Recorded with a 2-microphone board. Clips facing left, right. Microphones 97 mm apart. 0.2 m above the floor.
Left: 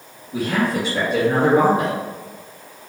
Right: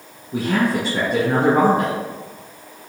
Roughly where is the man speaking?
Right.